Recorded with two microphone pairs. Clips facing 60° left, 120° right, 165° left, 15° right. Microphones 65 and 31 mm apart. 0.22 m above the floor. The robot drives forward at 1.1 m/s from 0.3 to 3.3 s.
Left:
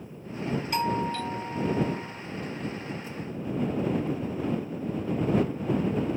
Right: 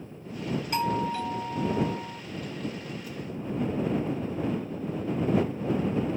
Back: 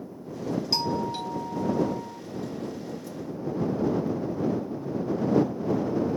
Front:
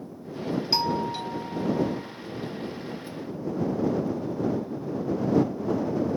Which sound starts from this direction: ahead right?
A doorbell, at 0.7 s.